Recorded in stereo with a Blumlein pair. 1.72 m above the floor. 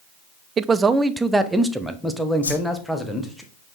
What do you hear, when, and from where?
0.6 s a man speaking: 20° right, 0.5 m; by 3.4 s 5° left, 1.9 m
2.4 s a whoosh: 70° left, 1.2 m